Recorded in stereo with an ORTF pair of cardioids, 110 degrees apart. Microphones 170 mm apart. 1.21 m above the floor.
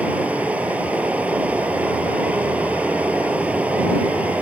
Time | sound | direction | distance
0.0 | running water | 10° right | ?